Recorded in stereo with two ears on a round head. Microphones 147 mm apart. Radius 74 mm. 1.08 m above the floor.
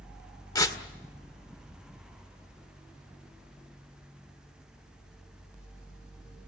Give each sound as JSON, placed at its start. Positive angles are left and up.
{"t": 0.6, "sound": "tearing paper", "side_deg": 25, "distance_m": 1.9}